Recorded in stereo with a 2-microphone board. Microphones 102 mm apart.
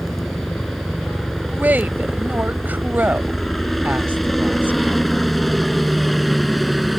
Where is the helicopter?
5° left (ahead or behind); by 7.0 s centre (ahead or behind).